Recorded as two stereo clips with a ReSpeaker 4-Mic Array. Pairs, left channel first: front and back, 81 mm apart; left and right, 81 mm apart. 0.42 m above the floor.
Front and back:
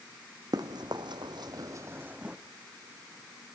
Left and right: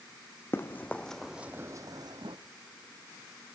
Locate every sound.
0.5 s running footsteps: 150° left, 1.4 m; by 2.4 s 100° right, 1.2 m